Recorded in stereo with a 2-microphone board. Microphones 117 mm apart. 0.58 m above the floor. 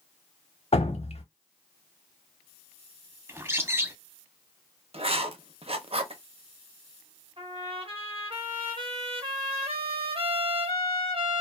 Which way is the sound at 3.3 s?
20° right (ahead or behind).